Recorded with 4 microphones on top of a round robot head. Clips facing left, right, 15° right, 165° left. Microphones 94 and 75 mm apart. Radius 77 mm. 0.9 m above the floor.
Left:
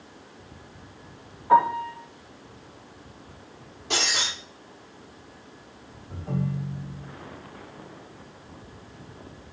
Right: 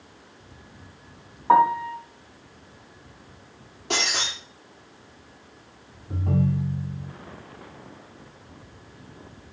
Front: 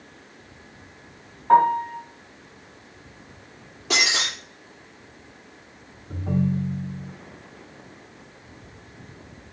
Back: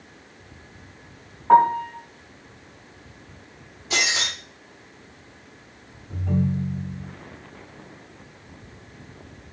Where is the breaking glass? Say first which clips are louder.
Right 1 dB, front 1 dB; 40° right, 5.5 m.